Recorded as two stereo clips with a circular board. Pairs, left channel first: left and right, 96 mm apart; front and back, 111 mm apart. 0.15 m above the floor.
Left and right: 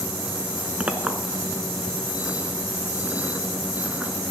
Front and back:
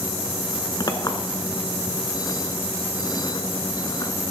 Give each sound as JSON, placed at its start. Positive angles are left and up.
{"t": 0.8, "sound": "a clink", "azimuth_deg": -20, "distance_m": 1.1}